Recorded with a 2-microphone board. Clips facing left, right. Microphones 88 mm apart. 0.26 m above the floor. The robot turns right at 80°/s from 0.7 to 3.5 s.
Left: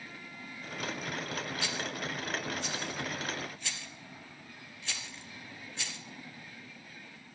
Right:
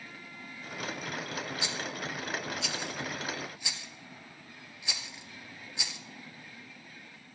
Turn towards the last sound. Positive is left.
turn(degrees=-10)  # may be behind; listen again after turning